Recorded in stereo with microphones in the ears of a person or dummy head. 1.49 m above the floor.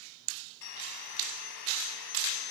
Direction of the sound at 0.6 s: 70° left (ahead or behind).